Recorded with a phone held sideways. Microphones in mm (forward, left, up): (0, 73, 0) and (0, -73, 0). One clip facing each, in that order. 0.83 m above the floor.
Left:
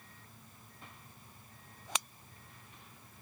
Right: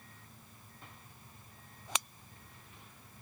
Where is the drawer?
No drawer in this recording.